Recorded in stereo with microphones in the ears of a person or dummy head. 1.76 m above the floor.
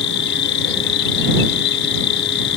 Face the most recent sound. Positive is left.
turn(degrees=70)  # may be behind; listen again after turning